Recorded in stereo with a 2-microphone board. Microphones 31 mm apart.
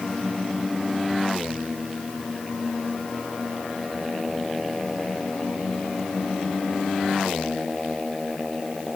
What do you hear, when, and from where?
Only background noise.